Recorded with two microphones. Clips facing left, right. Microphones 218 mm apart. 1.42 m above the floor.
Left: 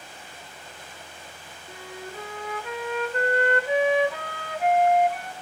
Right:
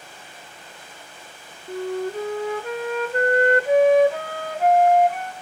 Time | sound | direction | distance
1.7 | a flute | 45° right (ahead or behind) | 0.6 m